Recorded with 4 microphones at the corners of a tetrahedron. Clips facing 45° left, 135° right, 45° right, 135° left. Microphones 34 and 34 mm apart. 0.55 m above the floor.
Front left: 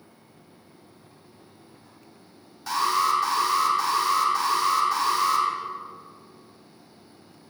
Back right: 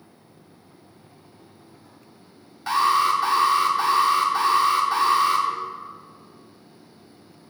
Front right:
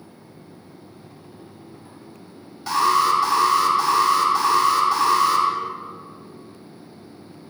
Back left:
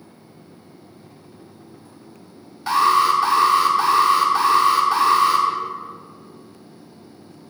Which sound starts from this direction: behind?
An alarm, at 2.7 s.